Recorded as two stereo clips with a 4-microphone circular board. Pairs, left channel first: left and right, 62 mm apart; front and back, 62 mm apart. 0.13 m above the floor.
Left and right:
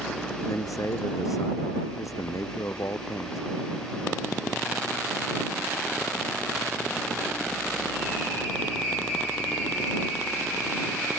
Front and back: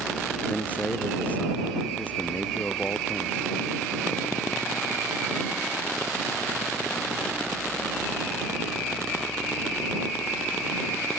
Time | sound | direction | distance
0.5 | a man speaking | 65° left | ?